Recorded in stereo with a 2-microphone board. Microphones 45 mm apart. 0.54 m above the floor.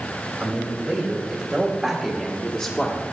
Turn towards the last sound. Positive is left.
turn(degrees=25)  # may be behind; listen again after turning